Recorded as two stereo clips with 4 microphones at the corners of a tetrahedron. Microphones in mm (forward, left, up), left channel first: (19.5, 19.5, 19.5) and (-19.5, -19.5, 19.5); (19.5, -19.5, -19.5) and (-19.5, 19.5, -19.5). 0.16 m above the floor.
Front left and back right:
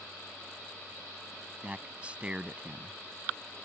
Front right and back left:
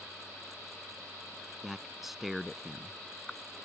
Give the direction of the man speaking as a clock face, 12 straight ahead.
5 o'clock.